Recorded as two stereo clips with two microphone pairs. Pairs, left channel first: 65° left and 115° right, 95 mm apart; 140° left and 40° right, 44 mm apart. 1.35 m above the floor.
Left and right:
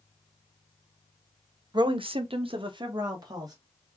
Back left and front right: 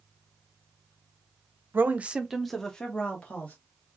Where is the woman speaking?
80° right, 0.7 m; by 3.5 s 165° right, 1.6 m.